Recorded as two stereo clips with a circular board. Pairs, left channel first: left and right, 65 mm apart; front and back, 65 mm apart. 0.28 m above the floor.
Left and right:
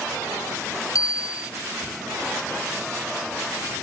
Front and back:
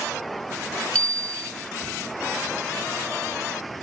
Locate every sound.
0.9 s a bicycle bell: 70° left